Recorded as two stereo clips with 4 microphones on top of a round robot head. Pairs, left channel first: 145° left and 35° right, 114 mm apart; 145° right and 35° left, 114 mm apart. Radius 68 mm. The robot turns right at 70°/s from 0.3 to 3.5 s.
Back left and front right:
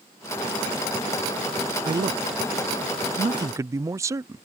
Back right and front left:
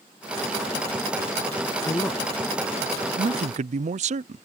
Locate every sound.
1.9 s a man speaking: 90° right; by 4.4 s 25° left